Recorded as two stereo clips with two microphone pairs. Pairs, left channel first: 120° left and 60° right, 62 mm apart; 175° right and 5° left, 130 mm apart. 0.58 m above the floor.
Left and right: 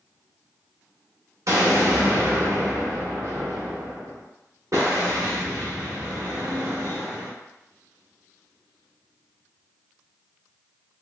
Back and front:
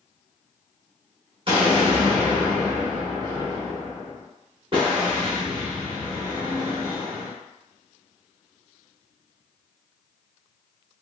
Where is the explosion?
40° right, 1.1 m.